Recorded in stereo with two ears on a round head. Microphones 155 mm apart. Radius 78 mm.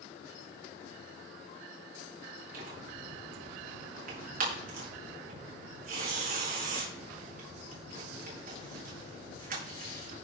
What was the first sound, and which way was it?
Tearing paper, 50° right (ahead or behind).